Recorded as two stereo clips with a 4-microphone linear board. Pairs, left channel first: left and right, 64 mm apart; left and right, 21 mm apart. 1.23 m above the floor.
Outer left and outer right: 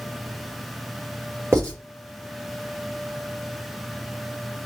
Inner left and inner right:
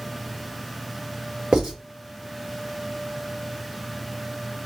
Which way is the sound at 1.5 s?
45° right (ahead or behind).